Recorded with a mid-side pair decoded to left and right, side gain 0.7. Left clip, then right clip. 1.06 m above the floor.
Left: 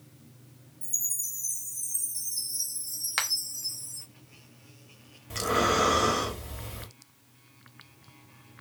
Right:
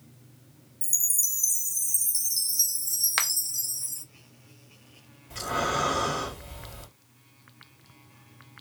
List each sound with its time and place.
0.8 s a chime: 55° right, 0.6 m
3.2 s a finger snap: 20° right, 0.7 m
5.3 s breathing: 35° left, 1.2 m